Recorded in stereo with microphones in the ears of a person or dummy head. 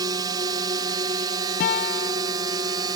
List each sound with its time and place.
0.0 s a drone: 20° right (ahead or behind)
1.6 s a guitar: 55° left (ahead or behind)